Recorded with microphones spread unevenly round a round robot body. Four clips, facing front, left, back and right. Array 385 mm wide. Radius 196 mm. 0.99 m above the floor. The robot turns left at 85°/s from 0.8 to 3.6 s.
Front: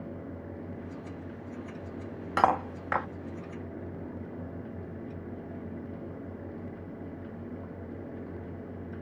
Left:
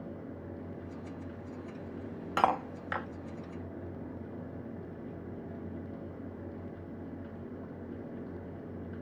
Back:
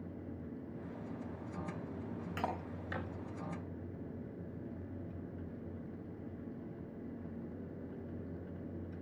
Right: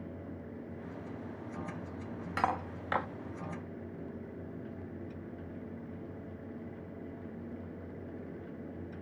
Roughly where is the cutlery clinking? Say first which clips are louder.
Left 5 dB, front 17 dB; ahead.